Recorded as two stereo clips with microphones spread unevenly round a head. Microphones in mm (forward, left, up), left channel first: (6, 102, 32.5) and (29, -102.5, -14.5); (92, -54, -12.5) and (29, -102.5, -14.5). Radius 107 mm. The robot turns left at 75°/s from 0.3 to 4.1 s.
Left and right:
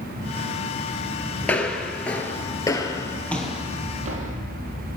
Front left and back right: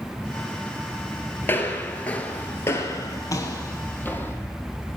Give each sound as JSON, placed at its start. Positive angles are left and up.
{"t": 1.4, "sound": "footsteps", "azimuth_deg": 55, "distance_m": 1.6}